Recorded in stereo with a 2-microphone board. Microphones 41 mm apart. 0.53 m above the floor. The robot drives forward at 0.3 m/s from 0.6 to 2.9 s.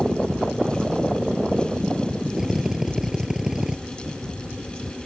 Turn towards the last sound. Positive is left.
turn(degrees=-10)  # may be behind; listen again after turning